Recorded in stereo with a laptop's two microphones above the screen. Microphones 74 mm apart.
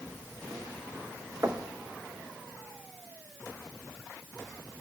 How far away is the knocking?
About 0.8 m.